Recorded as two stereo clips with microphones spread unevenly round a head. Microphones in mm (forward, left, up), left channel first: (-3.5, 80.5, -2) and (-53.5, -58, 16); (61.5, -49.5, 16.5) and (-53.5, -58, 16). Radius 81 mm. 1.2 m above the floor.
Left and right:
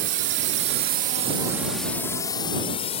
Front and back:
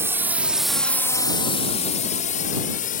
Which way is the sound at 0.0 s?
105° right.